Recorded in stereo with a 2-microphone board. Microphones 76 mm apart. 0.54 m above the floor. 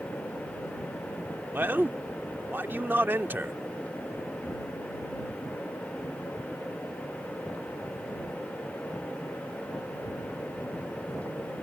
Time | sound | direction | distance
1.5 | a man speaking | 25° right (ahead or behind) | ?